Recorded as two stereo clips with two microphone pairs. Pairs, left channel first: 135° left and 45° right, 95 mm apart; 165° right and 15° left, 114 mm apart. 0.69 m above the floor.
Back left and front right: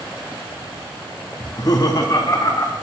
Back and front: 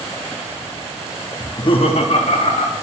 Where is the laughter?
130° left, 0.5 m; by 2.7 s 170° right, 2.0 m.